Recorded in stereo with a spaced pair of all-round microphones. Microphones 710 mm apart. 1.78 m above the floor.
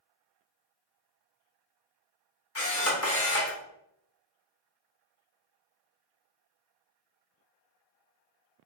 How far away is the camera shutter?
About 0.9 m.